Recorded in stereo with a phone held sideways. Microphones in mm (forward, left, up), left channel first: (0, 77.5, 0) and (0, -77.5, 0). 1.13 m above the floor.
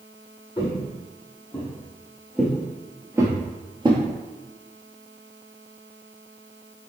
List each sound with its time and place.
0.6 s footsteps: 25° left (ahead or behind), 1.8 m; by 4.0 s 35° right (ahead or behind), 1.3 m